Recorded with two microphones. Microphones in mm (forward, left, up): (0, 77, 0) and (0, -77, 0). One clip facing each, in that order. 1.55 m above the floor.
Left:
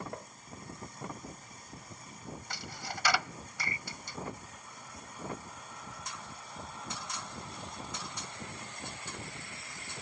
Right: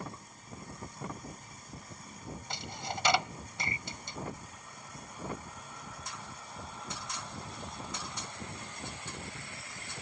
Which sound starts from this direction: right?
A dropped coin, at 2.5 s.